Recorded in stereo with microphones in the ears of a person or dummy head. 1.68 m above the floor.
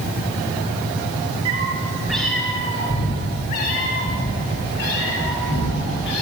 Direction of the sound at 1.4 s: 30° right (ahead or behind).